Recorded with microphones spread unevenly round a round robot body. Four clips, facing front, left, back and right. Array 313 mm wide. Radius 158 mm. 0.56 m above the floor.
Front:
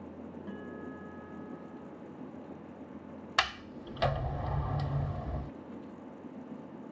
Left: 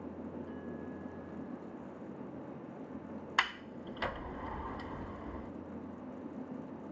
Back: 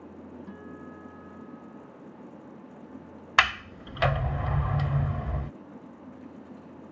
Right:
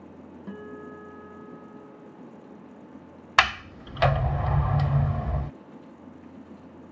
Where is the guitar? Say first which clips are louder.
Right 4 dB, front 1 dB; 90° right.